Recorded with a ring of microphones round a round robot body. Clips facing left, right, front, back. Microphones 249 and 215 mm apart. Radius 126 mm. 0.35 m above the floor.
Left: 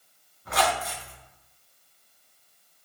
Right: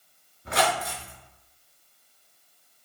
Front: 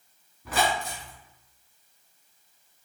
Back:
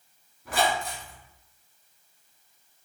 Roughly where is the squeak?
Ahead right.